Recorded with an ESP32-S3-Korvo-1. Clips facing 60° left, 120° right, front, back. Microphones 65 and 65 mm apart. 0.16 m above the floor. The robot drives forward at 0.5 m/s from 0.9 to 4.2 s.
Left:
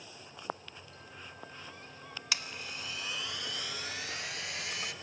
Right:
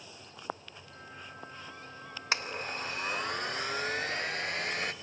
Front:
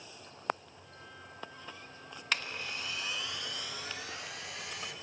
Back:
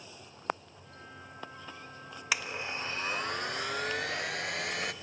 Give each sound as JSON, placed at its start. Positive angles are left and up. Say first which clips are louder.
{"t": 2.3, "sound": "a blender", "louder": "right 6 dB, back 2 dB", "azimuth_deg": -105, "distance_m": 0.6}